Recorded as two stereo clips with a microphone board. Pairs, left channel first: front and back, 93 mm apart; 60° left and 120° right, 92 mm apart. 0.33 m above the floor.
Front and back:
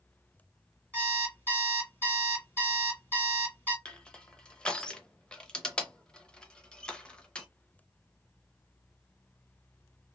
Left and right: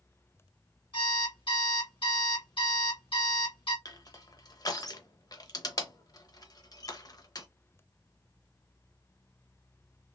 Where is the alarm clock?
65° left, 2 m.